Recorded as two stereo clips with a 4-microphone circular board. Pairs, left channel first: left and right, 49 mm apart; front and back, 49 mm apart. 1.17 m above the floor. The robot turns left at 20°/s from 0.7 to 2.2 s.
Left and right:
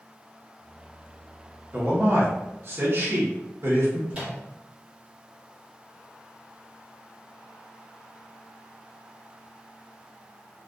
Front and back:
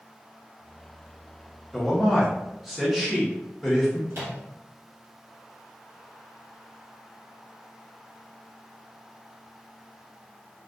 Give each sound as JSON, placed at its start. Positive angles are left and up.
{"t": 1.7, "sound": "a man speaking", "azimuth_deg": -85, "distance_m": 0.8}
{"t": 4.1, "sound": "a microwave", "azimuth_deg": -150, "distance_m": 1.1}